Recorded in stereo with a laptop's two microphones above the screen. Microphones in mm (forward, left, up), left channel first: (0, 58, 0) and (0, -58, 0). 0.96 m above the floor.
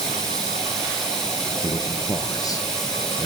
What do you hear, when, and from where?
0.0 s running water: 5° left (ahead or behind), 6.5 m
1.6 s a man speaking: 30° left (ahead or behind), 0.5 m